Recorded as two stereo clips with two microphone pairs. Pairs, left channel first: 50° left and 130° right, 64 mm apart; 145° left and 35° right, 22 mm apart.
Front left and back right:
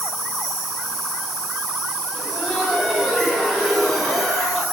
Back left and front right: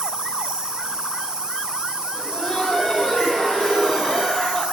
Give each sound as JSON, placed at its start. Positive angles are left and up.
{"t": 0.0, "sound": "an insect", "azimuth_deg": -40, "distance_m": 1.7}
{"t": 2.1, "sound": "laughter", "azimuth_deg": 155, "distance_m": 0.9}